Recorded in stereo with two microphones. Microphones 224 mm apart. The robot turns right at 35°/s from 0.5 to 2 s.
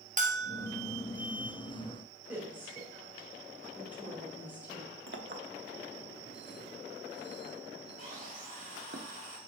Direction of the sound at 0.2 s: 35° right (ahead or behind).